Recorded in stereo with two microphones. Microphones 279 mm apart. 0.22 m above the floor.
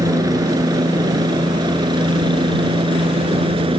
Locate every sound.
0.0 s a helicopter: 15° right (ahead or behind); by 3.8 s 20° right (ahead or behind)